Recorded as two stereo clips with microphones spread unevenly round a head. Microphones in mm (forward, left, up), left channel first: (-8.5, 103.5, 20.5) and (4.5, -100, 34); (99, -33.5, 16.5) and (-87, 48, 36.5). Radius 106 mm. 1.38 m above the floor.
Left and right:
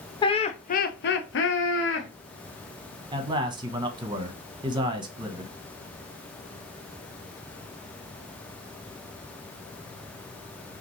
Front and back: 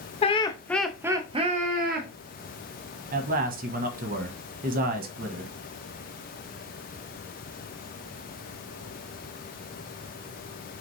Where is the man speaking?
155° right, 0.9 m.